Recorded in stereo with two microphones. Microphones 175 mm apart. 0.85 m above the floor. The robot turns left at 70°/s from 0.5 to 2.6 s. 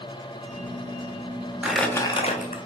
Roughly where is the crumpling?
Behind.